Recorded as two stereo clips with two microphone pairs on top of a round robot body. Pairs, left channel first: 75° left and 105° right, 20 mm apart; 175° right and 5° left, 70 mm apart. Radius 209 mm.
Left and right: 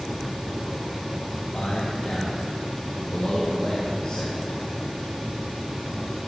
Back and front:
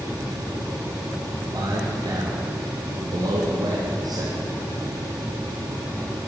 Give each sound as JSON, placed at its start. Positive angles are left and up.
{"t": 1.5, "sound": "a man speaking", "azimuth_deg": 25, "distance_m": 3.0}